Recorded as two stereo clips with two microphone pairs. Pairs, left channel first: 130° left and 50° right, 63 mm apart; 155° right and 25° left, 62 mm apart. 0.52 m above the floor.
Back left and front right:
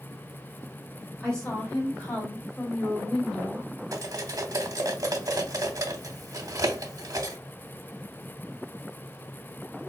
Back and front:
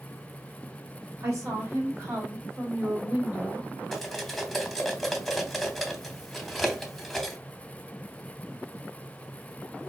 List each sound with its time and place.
1.2 s a woman speaking: 60° left, 2 m; by 3.7 s 70° left, 1.3 m
3.9 s cutlery clinking: 75° right, 0.7 m